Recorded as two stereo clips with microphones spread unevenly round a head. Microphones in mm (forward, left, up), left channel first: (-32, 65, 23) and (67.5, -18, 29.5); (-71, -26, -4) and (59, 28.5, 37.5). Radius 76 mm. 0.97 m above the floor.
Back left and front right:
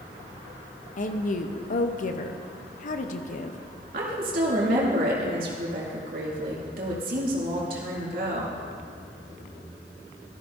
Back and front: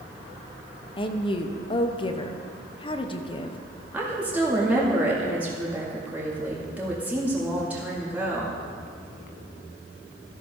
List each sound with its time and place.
1.0 s a woman speaking: 160° left, 0.9 m
3.9 s a woman speaking: 65° right, 2.5 m